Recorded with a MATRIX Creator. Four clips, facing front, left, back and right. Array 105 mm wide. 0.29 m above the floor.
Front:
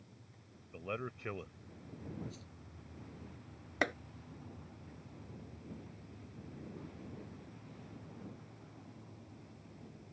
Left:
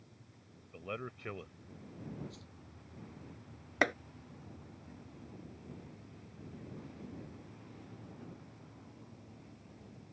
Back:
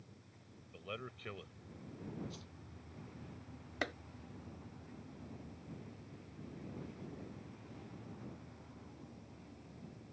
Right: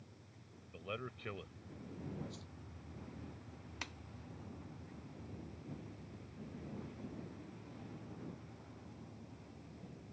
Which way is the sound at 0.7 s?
25° left.